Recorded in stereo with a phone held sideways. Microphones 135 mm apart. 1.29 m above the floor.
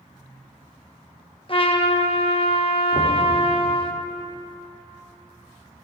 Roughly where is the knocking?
Right.